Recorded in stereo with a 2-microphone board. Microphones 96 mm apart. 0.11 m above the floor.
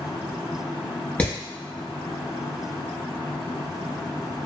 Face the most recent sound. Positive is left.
turn(degrees=15)  # may be behind; listen again after turning